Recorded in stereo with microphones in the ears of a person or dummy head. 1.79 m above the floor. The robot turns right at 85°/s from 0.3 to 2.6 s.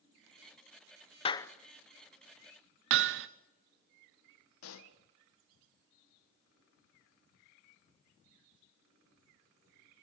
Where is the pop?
85° left, 1.8 m.